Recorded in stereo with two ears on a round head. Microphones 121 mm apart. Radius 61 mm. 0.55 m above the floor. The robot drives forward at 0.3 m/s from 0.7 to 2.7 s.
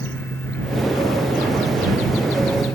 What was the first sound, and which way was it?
Only background noise.